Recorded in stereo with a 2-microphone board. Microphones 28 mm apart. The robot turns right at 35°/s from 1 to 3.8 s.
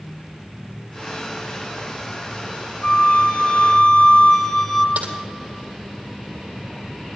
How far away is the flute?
About 1.4 m.